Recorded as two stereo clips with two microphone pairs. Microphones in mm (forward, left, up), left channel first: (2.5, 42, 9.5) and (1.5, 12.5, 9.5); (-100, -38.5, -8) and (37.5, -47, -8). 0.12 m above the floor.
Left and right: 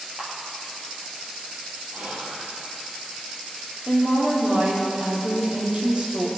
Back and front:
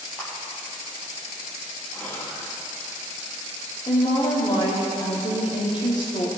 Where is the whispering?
105° right, 4 m.